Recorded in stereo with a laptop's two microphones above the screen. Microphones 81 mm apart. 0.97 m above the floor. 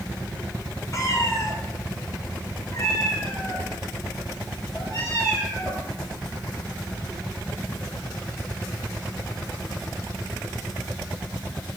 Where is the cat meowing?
45° left (ahead or behind), 1.2 m; by 5.9 s 50° left (ahead or behind), 3.5 m.